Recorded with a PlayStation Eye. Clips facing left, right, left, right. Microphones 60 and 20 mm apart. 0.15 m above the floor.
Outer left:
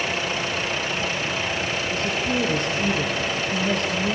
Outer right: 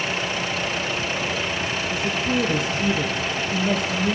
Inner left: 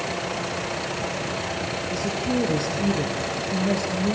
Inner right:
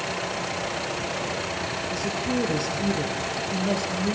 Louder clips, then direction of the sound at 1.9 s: Outer right 2 dB, inner left 2 dB; 5° right (ahead or behind).